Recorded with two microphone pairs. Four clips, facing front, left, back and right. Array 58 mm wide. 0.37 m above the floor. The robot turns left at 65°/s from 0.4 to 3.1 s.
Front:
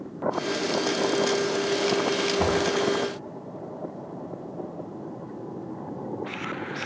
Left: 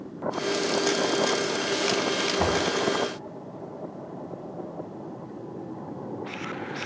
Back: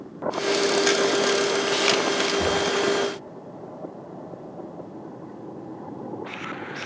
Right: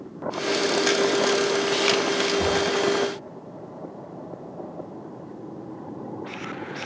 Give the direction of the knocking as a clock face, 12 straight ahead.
10 o'clock.